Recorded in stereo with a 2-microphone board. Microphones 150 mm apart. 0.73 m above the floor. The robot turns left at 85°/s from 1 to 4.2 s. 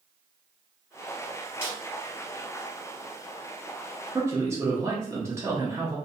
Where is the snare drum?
10° right (ahead or behind), 1.4 m; by 1.8 s 20° right (ahead or behind), 1.4 m.